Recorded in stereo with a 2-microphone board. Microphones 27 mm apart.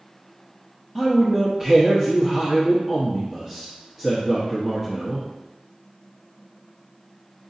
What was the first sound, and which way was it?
A man speaking, 5° right (ahead or behind).